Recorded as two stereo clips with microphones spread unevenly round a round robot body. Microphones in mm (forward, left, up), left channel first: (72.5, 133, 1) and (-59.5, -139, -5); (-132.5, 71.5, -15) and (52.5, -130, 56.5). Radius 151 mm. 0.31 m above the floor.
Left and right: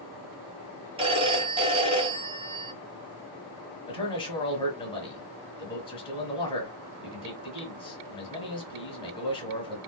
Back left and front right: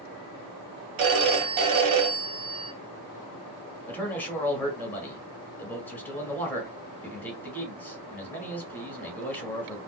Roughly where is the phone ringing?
Ahead right.